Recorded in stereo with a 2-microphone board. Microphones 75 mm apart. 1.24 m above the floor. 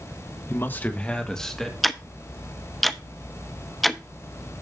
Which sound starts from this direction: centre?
Ticking, at 1.8 s.